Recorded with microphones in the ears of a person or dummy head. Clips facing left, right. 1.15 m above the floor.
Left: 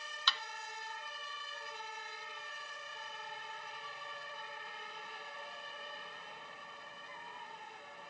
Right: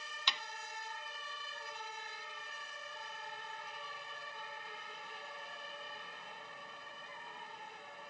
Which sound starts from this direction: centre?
A thud, at 0.3 s.